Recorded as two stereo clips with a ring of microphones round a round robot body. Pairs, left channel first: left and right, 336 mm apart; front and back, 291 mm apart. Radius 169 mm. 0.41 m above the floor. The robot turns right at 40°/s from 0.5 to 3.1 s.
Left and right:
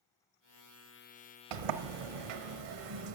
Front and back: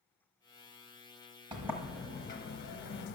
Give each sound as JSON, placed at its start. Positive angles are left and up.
{"t": 1.5, "sound": "a sliding door", "azimuth_deg": -100, "distance_m": 0.6}